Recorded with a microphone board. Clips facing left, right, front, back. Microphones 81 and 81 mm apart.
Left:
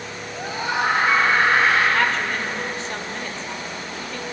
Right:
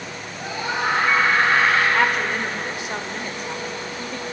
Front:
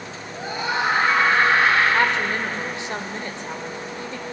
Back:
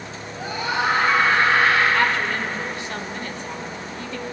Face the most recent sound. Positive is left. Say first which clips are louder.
# right 1 dB, even
turn(degrees=-30)